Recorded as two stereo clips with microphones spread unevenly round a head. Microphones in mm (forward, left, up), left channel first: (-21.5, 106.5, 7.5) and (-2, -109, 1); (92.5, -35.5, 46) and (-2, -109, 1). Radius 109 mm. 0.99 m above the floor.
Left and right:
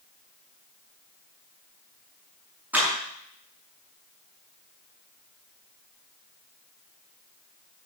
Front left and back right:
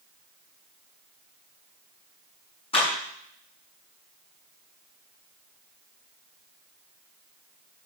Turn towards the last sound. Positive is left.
turn(degrees=0)